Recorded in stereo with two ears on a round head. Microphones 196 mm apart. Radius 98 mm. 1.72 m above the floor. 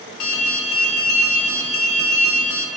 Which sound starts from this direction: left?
An alarm, at 0.2 s.